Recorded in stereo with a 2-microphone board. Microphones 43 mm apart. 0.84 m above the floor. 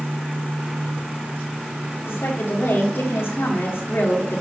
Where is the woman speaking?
65° left (ahead or behind), 1.5 m.